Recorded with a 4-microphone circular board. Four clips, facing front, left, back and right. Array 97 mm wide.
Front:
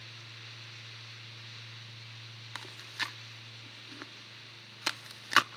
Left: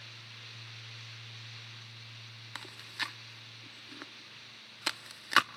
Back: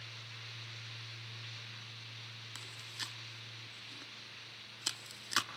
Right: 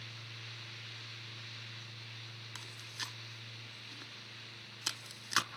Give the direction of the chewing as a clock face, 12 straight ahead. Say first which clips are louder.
Left 8 dB, front 10 dB; 11 o'clock.